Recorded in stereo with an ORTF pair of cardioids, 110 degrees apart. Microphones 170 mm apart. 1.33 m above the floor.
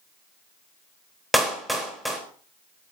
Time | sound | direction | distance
1.3 | a clap | straight ahead | 4 m